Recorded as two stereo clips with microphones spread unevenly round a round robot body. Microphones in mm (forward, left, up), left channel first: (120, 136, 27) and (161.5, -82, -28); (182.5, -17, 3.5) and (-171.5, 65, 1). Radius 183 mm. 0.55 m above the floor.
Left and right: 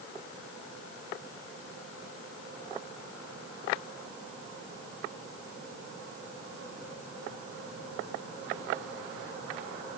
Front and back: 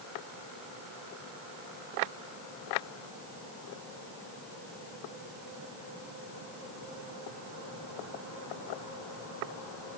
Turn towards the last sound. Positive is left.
No sound to turn to.